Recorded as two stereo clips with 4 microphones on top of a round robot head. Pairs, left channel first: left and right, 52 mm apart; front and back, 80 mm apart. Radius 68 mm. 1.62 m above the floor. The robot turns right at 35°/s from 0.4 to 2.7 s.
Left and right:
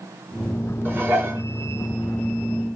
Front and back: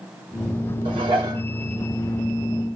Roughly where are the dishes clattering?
Behind right.